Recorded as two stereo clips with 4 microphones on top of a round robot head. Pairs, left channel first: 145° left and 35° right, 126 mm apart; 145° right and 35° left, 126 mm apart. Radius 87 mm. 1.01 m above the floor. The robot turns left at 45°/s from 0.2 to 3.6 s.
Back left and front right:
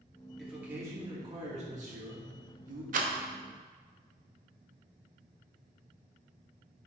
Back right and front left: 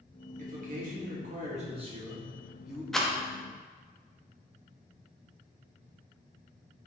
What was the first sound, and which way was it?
A man speaking, 55° left.